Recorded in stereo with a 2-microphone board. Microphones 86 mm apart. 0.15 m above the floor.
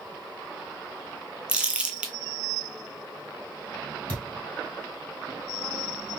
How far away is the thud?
About 2 m.